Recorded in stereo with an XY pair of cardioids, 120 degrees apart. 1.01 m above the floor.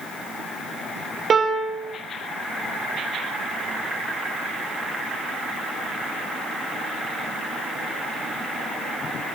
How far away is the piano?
About 3 m.